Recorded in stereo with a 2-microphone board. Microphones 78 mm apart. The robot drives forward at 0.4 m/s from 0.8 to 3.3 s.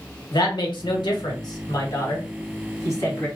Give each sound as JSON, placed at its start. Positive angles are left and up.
{"t": 0.3, "sound": "a woman speaking", "side_deg": 70, "distance_m": 1.0}